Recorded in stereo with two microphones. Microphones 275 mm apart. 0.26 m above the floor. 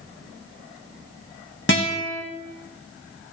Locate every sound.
1.7 s a guitar: 45° left (ahead or behind), 1.6 m